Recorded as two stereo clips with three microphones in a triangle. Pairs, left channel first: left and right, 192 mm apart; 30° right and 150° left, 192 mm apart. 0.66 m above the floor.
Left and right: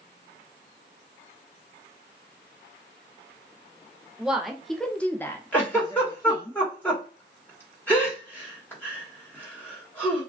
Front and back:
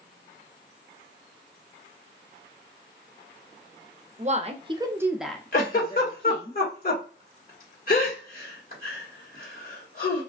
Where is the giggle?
10° left, 1.3 m.